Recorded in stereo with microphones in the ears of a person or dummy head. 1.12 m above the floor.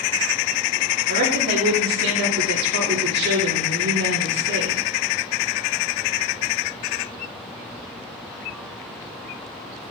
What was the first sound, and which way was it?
A woman speaking, 70° right (ahead or behind).